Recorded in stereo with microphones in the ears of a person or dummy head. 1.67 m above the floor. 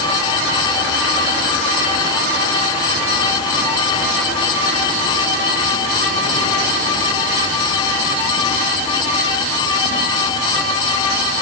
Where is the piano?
I don't hear a piano.